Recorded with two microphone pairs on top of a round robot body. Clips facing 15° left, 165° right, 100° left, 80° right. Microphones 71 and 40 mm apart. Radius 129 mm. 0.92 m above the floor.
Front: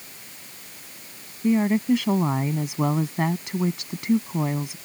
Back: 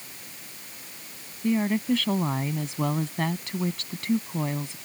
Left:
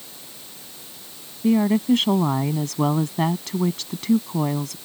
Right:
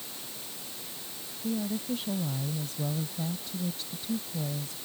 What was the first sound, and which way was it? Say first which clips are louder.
A woman speaking: front 4 dB, left 14 dB; 90° left.